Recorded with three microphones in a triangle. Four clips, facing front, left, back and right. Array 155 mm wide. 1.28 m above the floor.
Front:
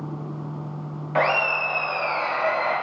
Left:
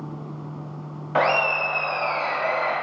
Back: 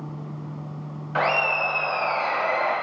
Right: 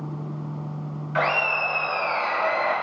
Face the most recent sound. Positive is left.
turn(degrees=170)